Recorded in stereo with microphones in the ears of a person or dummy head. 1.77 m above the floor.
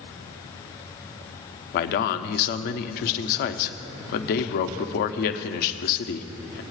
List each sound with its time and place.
1.7 s a man speaking: 55° left (ahead or behind), 0.6 m